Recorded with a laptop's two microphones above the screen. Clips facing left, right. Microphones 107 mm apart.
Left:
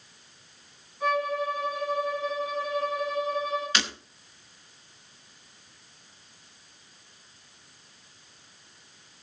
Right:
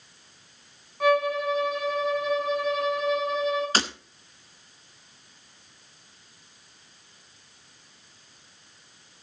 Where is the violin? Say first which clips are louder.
Right 4 dB; 70° right (ahead or behind), 4.5 m.